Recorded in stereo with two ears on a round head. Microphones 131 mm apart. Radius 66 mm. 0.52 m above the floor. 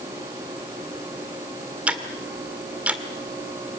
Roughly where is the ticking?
Centre.